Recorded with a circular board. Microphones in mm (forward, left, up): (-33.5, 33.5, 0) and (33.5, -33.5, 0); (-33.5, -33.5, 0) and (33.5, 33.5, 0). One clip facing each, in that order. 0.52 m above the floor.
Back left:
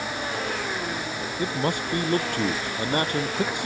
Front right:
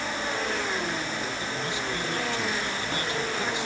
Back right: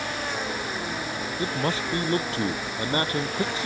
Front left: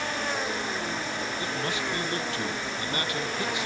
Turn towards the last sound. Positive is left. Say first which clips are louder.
# back left 5 dB, back right 7 dB
turn(degrees=175)